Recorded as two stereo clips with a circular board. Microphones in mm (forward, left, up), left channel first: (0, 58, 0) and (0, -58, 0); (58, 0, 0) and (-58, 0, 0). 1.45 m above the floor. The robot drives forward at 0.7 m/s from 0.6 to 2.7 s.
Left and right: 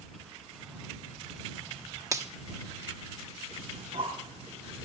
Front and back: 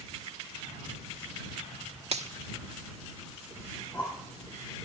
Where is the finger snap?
150° right, 1.3 m; by 2.3 s 155° right, 1.4 m.